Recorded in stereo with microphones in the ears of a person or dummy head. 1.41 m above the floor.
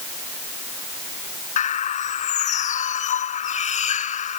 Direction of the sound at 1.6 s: 40° left (ahead or behind).